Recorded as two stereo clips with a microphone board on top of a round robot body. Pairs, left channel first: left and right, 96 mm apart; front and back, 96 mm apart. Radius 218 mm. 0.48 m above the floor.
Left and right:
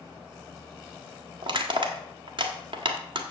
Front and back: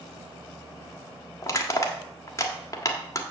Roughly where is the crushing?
Ahead right.